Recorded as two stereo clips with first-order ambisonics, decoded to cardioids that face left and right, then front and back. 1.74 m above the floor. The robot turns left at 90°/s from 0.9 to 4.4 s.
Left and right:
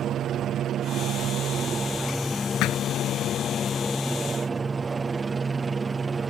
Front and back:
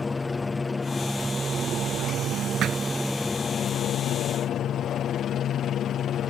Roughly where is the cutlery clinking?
I don't hear cutlery clinking.